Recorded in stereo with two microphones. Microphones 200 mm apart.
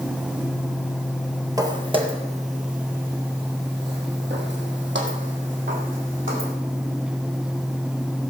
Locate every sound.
1.6 s footsteps: 20° right (ahead or behind), 1.8 m; by 6.5 s 75° right (ahead or behind), 4 m